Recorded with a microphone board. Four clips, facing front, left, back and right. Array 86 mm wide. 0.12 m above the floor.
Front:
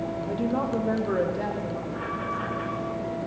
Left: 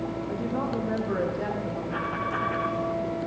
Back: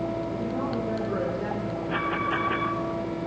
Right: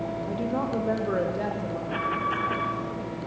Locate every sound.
0.3 s a woman speaking: 40° right, 4.5 m; by 1.8 s 55° right, 6 m
1.9 s an alarm: 150° right, 4 m